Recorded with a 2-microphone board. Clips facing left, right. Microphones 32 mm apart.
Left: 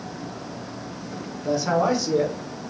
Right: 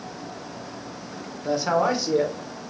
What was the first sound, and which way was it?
A man speaking, 20° right (ahead or behind).